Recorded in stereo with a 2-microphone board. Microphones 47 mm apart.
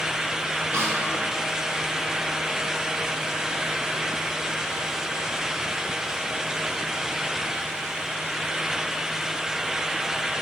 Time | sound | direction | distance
0.7 | a snare drum | 55° right (ahead or behind) | 3 m